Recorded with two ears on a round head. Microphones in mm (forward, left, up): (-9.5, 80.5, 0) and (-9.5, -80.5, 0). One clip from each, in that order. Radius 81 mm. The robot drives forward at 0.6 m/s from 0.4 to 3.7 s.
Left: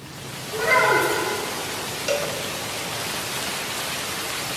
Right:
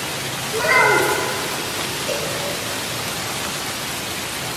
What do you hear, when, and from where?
0.5 s a child speaking: 5° left (ahead or behind), 1.3 m
2.1 s a cowbell: 60° left (ahead or behind), 0.8 m